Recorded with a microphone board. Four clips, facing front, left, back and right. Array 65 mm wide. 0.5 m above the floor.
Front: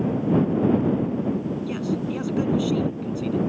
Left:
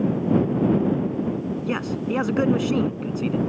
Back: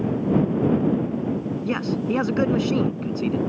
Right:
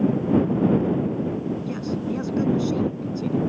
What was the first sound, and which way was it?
A man speaking, 135° left.